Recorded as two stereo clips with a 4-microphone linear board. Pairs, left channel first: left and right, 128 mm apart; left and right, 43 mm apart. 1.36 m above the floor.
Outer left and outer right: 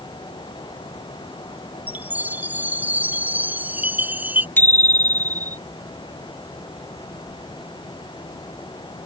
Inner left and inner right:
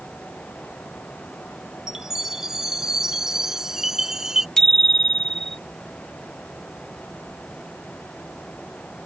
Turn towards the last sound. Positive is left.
turn(degrees=15)  # may be behind; listen again after turning